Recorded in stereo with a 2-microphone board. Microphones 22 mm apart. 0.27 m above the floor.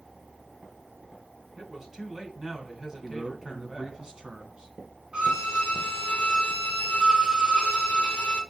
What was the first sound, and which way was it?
A man speaking, 20° right (ahead or behind).